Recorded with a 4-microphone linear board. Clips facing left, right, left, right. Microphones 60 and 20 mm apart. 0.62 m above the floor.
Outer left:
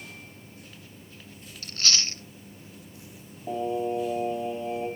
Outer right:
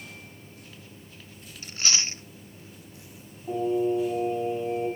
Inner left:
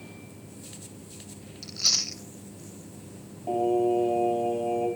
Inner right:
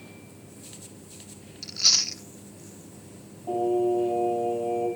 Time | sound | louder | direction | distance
1.6 | chewing | outer left 1 dB, inner right 3 dB | 15° right (ahead or behind) | 0.5 m
3.5 | singing | outer right 3 dB, even | 70° left (ahead or behind) | 4.5 m